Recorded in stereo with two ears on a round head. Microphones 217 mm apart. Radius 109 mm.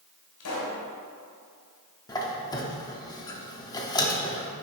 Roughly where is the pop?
Left.